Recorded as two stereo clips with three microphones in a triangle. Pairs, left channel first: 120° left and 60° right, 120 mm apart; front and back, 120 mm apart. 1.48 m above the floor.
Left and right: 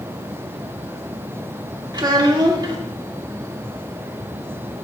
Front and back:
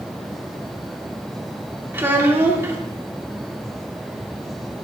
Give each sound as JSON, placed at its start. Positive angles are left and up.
{"t": 1.9, "sound": "a child speaking", "azimuth_deg": -110, "distance_m": 1.8}